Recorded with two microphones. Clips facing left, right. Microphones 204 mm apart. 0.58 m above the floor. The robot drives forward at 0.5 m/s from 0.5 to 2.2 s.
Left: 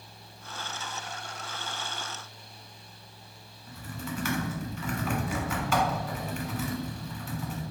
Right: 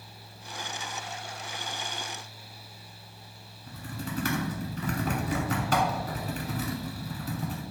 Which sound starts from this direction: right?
Typing on a keyboard, at 3.7 s.